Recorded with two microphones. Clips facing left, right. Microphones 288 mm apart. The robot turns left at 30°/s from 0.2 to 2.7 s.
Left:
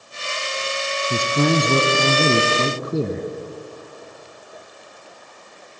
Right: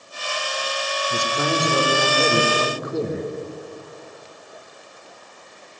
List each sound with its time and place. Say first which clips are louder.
1.1 s a man speaking: left 6 dB; 105° left, 1.3 m; by 3.3 s 55° left, 1.3 m